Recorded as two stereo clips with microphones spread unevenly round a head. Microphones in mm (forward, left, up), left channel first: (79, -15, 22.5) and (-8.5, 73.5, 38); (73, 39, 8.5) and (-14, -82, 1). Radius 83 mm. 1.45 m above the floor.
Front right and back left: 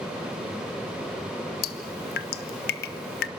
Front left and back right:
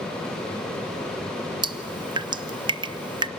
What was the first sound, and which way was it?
Dripping, 65° right.